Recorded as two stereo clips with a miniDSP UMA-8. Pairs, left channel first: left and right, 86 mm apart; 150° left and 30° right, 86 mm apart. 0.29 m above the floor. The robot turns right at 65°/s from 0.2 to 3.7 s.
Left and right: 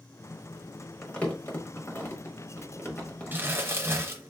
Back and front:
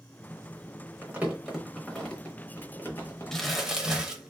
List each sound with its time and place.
1.0 s crumpling: 10° left, 0.9 m; by 3.7 s 175° right, 0.9 m
3.3 s crumpling: 130° right, 0.6 m; by 4.3 s 105° right, 0.6 m